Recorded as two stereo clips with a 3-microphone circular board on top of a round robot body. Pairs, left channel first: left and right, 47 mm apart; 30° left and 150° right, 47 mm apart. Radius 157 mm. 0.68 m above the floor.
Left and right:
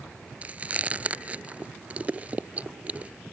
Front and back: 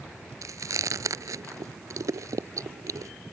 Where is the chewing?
155° right.